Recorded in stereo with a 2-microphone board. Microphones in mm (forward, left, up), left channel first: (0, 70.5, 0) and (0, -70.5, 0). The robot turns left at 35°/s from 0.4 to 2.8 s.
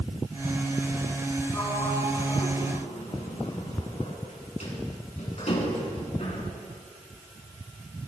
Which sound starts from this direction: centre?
A sliding door, at 1.5 s.